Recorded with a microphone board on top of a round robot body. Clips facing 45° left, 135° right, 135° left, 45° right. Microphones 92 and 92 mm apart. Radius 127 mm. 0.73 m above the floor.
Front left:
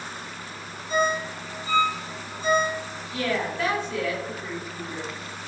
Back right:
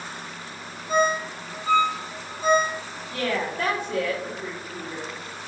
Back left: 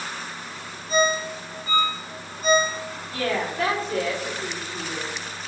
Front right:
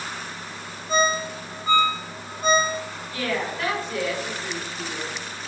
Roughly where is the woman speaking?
Behind.